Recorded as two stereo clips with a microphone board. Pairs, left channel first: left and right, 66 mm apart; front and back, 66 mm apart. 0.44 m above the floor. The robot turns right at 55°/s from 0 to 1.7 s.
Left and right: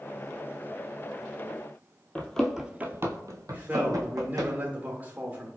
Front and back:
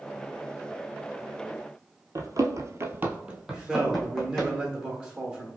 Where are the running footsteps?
155° left, 0.8 m; by 4.5 s 80° right, 1.7 m.